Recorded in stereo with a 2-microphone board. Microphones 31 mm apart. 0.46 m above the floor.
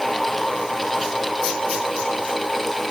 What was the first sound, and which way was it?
Only background noise.